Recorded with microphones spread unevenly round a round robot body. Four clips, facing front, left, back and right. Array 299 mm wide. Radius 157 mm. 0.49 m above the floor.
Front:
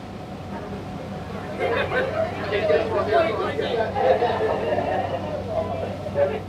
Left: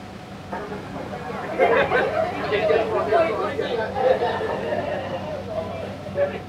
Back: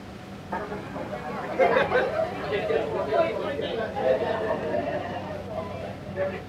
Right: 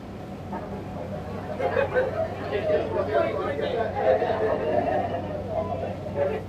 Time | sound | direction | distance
0.5 | laughter | 125° left | 1.4 m